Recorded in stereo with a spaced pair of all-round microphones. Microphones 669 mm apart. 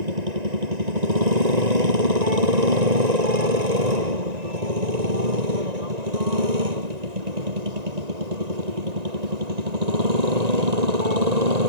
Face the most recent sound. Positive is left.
turn(degrees=-70)  # may be behind; listen again after turning